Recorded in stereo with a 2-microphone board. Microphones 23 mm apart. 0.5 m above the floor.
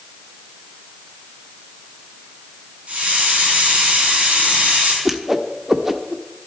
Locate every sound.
2.9 s a hiss: 60° right (ahead or behind), 4.5 m
5.0 s a whoosh: 15° right (ahead or behind), 1.0 m